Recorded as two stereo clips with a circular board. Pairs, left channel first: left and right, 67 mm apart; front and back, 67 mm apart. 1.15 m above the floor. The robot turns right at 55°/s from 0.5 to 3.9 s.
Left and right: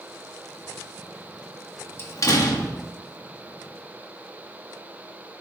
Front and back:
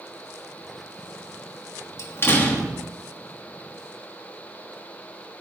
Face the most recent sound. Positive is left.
turn(degrees=145)